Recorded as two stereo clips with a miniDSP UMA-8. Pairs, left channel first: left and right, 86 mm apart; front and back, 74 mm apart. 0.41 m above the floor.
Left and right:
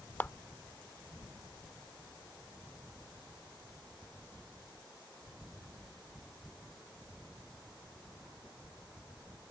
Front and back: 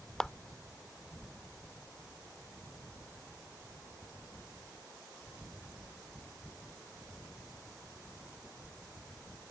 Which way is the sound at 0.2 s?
75° left.